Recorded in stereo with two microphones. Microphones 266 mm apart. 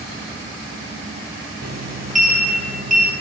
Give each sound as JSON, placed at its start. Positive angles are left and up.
{"t": 1.6, "sound": "a sliding door", "side_deg": -80, "distance_m": 7.0}